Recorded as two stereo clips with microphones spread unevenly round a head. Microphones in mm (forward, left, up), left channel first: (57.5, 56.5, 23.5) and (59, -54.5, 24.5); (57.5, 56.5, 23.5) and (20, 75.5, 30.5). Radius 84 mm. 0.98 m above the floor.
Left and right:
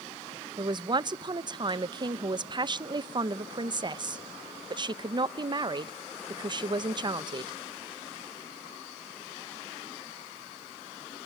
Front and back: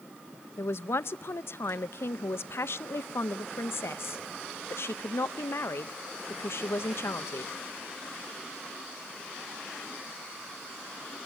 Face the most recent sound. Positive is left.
turn(degrees=-40)